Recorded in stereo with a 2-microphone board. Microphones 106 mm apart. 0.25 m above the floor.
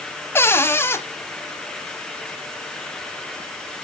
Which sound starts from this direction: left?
A cupboard door, at 0.3 s.